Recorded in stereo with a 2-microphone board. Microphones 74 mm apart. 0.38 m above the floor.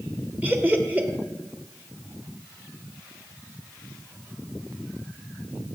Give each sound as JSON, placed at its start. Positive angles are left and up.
{"t": 0.4, "sound": "laughter", "side_deg": -20, "distance_m": 0.9}